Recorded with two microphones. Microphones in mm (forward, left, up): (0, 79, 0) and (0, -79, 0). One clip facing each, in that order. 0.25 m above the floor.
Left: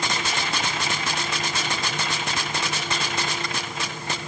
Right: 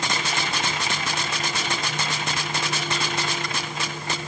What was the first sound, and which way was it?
Only background noise.